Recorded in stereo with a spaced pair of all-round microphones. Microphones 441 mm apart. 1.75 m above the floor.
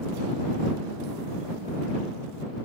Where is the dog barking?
I don't hear a dog barking.